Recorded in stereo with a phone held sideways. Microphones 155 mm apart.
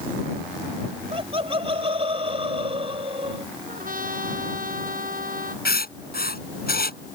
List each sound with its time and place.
1.1 s laughter: 40° right (ahead or behind)
3.7 s a trumpet: 65° right (ahead or behind)
5.7 s writing: 80° left